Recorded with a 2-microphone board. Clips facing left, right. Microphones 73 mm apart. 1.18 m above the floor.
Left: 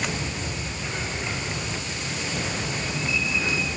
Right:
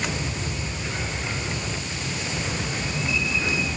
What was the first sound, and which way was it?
Only background noise.